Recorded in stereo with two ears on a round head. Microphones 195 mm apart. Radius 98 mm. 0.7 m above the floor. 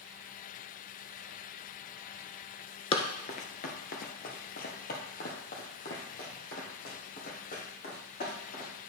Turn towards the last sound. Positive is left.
turn(degrees=45)  # may be behind; listen again after turning